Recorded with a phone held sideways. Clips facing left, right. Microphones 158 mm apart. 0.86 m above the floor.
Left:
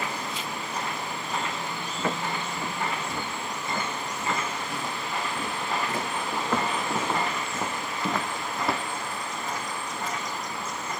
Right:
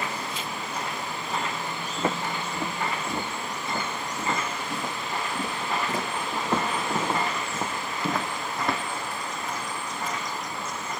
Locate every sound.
2.0 s footsteps: 35° right (ahead or behind), 8 m; by 8.8 s 5° left (ahead or behind), 2.5 m